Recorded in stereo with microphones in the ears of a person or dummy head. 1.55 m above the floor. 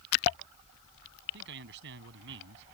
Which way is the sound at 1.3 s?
60° right (ahead or behind).